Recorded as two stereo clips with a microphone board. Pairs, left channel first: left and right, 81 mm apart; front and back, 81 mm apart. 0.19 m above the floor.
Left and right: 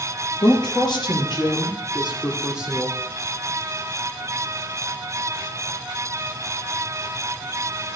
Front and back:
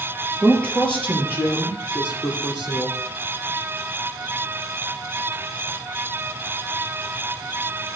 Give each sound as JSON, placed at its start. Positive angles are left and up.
{"t": 0.4, "sound": "a woman speaking", "azimuth_deg": 75, "distance_m": 4.5}